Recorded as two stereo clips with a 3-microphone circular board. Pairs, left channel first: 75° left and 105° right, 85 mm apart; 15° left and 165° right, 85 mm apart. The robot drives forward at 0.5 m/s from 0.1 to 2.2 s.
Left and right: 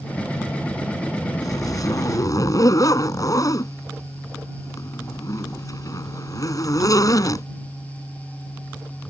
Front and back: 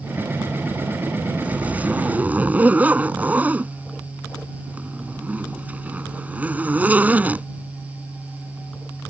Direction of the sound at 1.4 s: 120° left.